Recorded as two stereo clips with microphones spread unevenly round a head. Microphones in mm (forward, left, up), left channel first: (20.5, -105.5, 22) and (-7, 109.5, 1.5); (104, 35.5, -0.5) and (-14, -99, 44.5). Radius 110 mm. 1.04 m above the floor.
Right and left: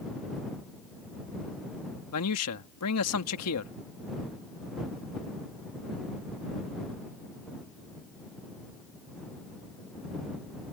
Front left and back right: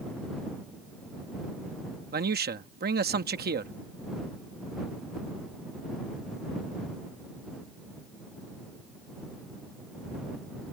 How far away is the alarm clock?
I don't hear an alarm clock.